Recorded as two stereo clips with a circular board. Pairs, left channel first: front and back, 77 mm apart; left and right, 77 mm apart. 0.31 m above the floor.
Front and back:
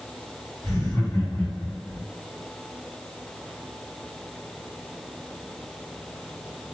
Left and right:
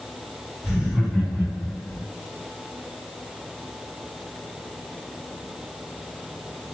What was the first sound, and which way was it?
Laughter, 15° right.